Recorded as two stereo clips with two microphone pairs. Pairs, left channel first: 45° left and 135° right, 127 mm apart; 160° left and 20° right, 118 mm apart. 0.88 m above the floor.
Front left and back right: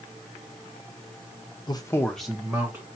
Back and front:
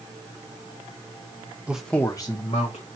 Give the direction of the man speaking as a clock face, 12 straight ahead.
10 o'clock.